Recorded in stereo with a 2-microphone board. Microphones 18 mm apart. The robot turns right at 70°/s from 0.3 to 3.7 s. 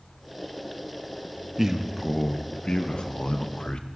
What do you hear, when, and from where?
1.6 s a man speaking: 25° right, 0.7 m; by 3.9 s 120° left, 0.7 m